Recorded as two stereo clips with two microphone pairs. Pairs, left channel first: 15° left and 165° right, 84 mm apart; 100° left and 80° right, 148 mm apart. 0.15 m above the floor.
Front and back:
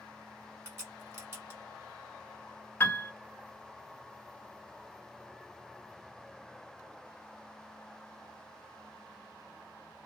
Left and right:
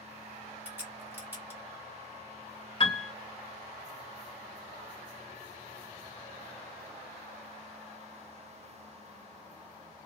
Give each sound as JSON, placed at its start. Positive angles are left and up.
{"t": 0.7, "sound": "a crack", "azimuth_deg": -145, "distance_m": 1.7}
{"t": 2.8, "sound": "a piano", "azimuth_deg": 65, "distance_m": 0.6}